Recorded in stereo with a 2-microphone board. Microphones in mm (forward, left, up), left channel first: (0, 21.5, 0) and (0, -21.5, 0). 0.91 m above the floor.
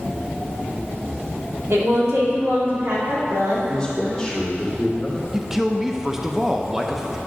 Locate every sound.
1.7 s a woman speaking: 75° right (ahead or behind), 2 m
3.7 s a man speaking: 10° left (ahead or behind), 2 m
5.3 s a man speaking: 10° right (ahead or behind), 0.5 m